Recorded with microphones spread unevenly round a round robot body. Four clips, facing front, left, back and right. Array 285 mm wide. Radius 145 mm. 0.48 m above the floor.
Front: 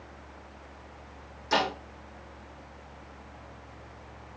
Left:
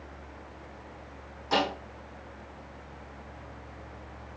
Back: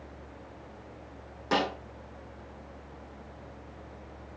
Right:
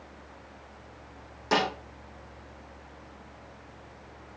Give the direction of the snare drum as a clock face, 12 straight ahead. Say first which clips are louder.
Right 1 dB, front 1 dB; 5 o'clock.